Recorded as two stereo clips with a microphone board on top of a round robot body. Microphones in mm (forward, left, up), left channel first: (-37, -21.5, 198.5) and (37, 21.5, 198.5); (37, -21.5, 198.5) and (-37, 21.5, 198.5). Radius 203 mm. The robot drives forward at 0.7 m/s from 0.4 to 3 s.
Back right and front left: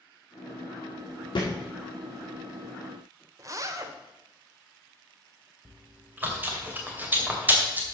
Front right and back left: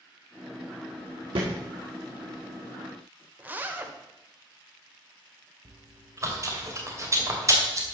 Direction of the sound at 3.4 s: 80° left.